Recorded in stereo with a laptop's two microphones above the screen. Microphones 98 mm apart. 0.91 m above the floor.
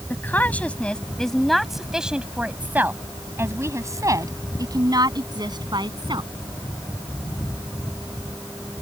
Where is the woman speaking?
20° left (ahead or behind); by 6.3 s 55° right (ahead or behind).